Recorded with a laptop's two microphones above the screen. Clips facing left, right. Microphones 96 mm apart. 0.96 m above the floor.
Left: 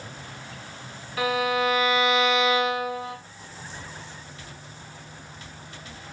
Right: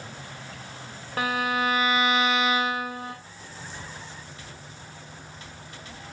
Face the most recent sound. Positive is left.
turn(degrees=-45)  # may be behind; listen again after turning